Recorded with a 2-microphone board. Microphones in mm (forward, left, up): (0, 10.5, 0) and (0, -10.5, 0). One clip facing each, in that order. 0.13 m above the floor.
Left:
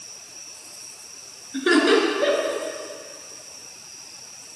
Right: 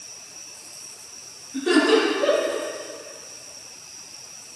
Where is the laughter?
40° left (ahead or behind), 2 m; by 2.6 s 50° left (ahead or behind), 2.5 m.